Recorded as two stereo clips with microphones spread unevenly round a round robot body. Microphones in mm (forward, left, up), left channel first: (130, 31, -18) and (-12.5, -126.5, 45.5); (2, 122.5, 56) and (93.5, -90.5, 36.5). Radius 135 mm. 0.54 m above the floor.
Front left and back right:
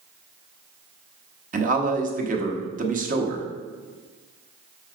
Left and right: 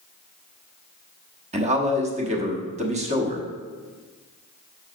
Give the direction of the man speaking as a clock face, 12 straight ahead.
3 o'clock.